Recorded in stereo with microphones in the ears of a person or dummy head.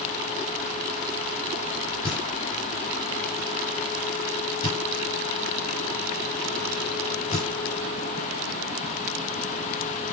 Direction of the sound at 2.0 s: 30° left (ahead or behind).